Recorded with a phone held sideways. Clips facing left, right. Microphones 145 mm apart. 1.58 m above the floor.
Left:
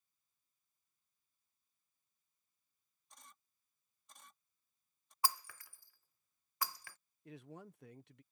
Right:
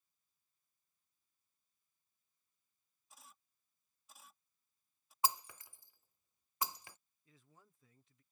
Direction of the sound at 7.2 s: 70° left (ahead or behind).